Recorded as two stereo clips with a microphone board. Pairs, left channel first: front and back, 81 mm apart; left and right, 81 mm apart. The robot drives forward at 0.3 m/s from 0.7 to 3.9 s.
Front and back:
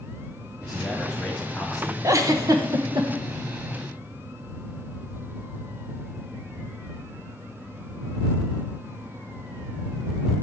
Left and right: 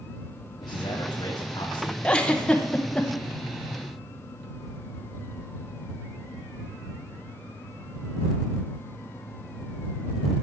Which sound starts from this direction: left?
A man speaking, at 0.6 s.